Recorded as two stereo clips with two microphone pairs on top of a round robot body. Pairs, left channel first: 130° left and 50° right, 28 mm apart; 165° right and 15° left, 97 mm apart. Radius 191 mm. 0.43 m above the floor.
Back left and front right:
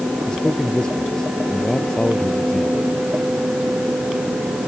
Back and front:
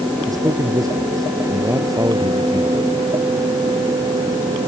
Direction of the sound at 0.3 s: 70° left.